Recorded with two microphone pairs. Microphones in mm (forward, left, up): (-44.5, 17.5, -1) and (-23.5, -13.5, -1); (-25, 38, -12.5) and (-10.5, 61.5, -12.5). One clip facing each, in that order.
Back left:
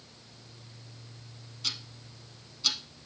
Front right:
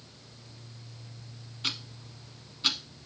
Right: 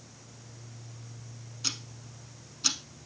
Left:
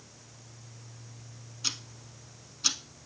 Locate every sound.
1.6 s ticking: 25° right, 0.8 m